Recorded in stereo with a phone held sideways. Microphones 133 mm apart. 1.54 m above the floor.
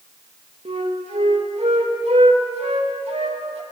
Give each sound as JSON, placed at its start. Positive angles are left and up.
{"t": 0.7, "sound": "a flute", "side_deg": -50, "distance_m": 2.5}